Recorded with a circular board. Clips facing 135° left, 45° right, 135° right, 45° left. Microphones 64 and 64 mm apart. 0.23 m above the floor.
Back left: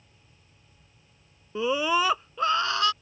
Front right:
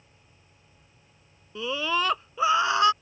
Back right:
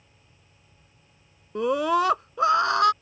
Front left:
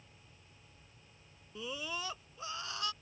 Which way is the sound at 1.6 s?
160° right.